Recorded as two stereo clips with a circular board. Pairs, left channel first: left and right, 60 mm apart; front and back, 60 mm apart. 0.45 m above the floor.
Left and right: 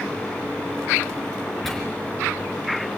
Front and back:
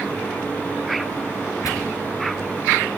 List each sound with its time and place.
1.6 s tearing paper: 5° left, 4 m